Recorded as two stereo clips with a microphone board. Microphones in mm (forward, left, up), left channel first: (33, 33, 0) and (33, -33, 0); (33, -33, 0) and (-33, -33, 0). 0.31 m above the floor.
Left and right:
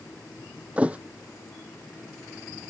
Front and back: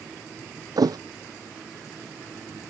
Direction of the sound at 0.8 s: 160° right.